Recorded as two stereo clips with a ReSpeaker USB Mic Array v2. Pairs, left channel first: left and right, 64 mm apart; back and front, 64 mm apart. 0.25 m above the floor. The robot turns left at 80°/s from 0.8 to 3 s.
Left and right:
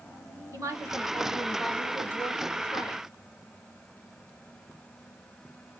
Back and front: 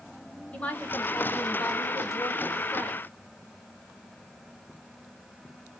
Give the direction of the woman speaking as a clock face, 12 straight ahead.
4 o'clock.